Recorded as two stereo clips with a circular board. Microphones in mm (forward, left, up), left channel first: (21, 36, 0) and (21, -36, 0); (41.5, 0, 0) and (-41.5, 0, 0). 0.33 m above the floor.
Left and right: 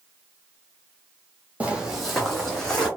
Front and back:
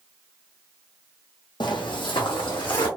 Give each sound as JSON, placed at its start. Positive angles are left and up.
{"t": 1.6, "sound": "footsteps", "azimuth_deg": -20, "distance_m": 0.9}